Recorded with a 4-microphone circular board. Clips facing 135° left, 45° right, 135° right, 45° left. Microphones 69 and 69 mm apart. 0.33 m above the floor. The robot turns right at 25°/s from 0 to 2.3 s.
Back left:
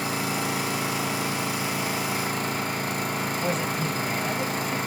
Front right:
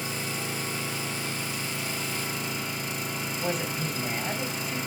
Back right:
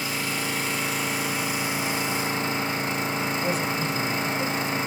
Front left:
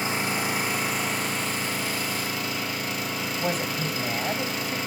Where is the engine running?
110° left, 1.5 m; by 4.9 s 165° left, 1.5 m.